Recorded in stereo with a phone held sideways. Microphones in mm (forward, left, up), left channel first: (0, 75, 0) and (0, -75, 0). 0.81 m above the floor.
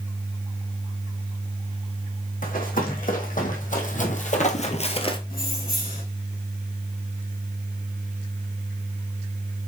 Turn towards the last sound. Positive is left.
turn(degrees=85)